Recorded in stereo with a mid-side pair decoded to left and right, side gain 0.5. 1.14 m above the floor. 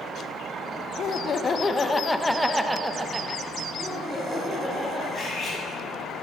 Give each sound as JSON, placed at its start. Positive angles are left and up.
{"t": 1.0, "sound": "laughter", "azimuth_deg": 55, "distance_m": 0.8}
{"t": 3.8, "sound": "laughter", "azimuth_deg": -5, "distance_m": 3.5}
{"t": 5.1, "sound": "cutlery clinking", "azimuth_deg": 40, "distance_m": 4.0}